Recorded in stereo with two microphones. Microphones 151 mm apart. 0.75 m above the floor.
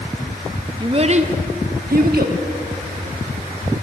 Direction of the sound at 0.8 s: 30° right (ahead or behind).